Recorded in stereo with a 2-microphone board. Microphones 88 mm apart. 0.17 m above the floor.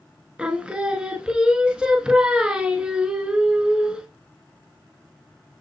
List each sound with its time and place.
0.4 s singing: 10° right (ahead or behind), 0.6 m